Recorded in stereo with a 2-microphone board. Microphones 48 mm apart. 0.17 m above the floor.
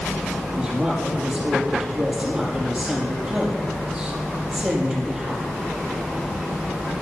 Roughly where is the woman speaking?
Centre.